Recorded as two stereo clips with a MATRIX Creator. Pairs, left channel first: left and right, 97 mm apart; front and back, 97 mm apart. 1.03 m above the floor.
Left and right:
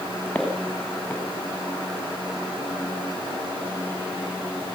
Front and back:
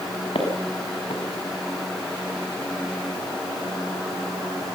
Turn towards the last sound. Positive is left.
turn(degrees=15)